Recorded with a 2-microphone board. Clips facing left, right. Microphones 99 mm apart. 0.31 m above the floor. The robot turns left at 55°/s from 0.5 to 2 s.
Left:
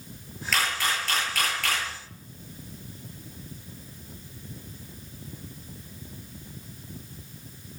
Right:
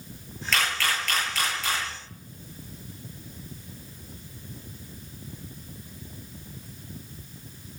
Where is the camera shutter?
Centre (ahead or behind), 8.5 m; by 1.9 s 70° left (ahead or behind), 8.5 m.